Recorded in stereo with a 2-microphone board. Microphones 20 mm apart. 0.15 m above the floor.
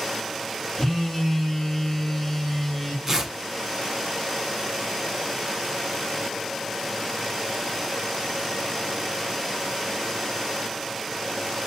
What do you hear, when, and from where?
0.8 s a phone buzzing: 35° left (ahead or behind), 1.0 m
3.1 s tearing paper: 20° right (ahead or behind), 0.9 m